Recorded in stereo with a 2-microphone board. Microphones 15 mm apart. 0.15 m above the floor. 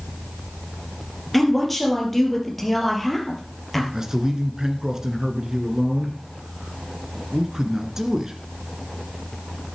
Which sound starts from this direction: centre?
A woman speaking, at 1.3 s.